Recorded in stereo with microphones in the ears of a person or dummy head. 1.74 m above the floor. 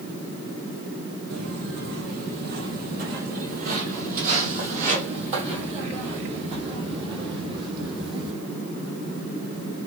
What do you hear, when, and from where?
1.3 s footsteps: 60° right (ahead or behind), 4 m; by 8.3 s 25° right (ahead or behind), 5.5 m